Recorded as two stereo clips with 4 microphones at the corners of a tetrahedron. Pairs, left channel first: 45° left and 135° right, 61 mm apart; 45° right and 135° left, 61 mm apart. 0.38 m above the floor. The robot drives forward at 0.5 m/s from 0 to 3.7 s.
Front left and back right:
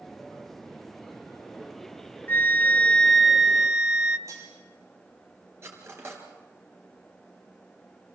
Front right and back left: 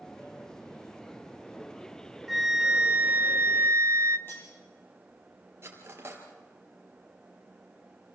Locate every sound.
2.3 s a flute: 45° left, 0.6 m; by 4.2 s 155° left, 0.7 m
4.3 s cutlery clinking: 100° right, 6.5 m
5.6 s cutlery clinking: straight behind, 3.5 m